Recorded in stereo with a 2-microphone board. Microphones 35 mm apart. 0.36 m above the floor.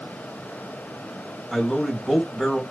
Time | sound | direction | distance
1.5 | a man speaking | centre (ahead or behind) | 1.4 m